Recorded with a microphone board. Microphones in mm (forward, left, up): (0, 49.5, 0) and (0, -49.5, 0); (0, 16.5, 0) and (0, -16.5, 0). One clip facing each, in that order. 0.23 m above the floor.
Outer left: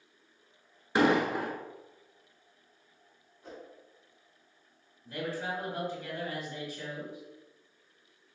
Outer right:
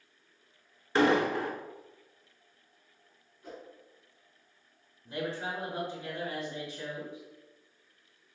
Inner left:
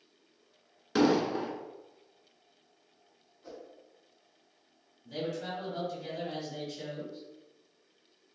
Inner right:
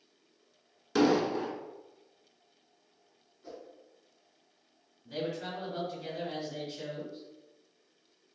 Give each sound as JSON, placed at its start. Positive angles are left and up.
{"t": 0.9, "sound": "an explosion", "side_deg": 15, "distance_m": 0.6}
{"t": 3.4, "sound": "a whoosh", "side_deg": 20, "distance_m": 1.9}
{"t": 5.0, "sound": "a man speaking", "side_deg": -20, "distance_m": 1.5}